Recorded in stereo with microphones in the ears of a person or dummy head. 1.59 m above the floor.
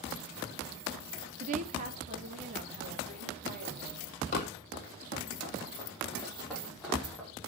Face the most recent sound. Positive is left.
turn(degrees=-5)  # may be behind; listen again after turning